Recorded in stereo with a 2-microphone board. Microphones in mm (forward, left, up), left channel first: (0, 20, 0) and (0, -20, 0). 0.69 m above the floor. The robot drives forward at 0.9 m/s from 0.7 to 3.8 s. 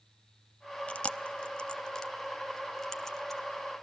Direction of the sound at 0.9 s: 30° left (ahead or behind).